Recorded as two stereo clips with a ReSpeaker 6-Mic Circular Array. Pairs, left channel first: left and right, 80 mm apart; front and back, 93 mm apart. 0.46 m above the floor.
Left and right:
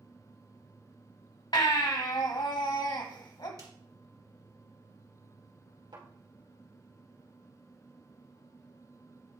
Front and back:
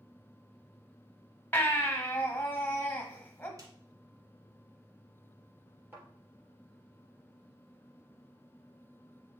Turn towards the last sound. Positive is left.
turn(degrees=-110)